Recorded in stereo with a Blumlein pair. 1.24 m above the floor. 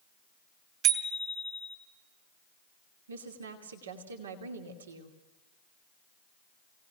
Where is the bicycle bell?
35° right, 3 m.